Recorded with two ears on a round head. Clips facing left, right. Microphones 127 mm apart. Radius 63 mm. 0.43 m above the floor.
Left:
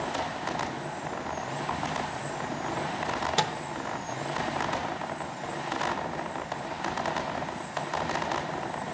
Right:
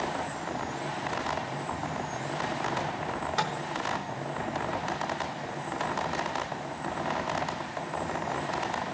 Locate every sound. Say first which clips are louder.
3.1 s a microwave: left 4 dB; 30° left (ahead or behind), 0.7 m